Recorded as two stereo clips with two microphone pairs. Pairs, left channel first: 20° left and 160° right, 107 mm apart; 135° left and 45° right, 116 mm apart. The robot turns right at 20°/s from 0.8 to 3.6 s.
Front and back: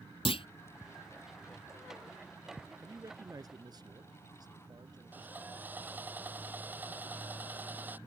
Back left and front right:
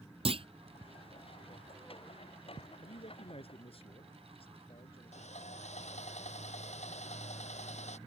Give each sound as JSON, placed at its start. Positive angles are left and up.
{"t": 0.2, "sound": "a clunk", "azimuth_deg": -10}
{"t": 2.8, "sound": "a man speaking", "azimuth_deg": 140}
{"t": 5.1, "sound": "sawing", "azimuth_deg": 125}